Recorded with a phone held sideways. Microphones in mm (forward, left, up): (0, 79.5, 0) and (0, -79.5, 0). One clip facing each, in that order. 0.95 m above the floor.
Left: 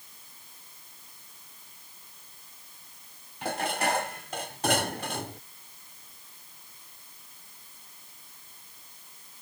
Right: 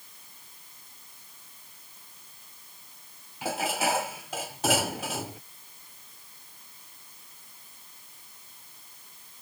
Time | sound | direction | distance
3.4 | dishes clattering | 5° right (ahead or behind) | ?